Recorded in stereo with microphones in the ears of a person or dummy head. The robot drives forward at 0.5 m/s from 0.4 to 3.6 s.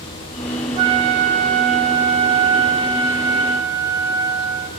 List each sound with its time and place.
0.8 s a flute: 30° right (ahead or behind), 0.7 m; by 4.7 s 15° right (ahead or behind), 1.4 m